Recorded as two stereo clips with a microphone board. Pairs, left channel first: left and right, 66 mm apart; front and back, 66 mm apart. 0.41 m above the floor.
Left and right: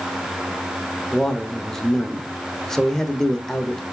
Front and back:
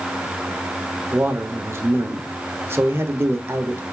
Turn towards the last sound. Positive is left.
turn(degrees=170)